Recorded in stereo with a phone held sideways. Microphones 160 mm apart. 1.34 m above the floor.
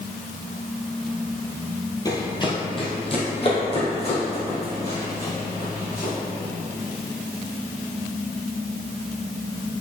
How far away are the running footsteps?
About 1.4 m.